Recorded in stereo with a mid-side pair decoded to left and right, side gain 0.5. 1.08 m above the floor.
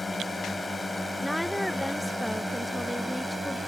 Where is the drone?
20° left; by 3.7 s 5° right.